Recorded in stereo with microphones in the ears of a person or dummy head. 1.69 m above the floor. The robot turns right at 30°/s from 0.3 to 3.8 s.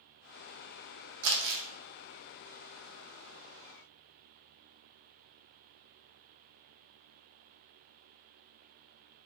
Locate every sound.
1.2 s crumpling: 55° right (ahead or behind), 0.6 m; by 1.6 s 65° right (ahead or behind), 0.6 m